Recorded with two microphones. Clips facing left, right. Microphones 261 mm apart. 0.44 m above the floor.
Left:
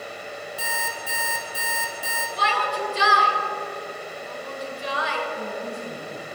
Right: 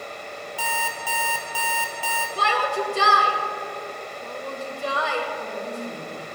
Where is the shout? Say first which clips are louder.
Right 3 dB; 55° right (ahead or behind), 1.8 m.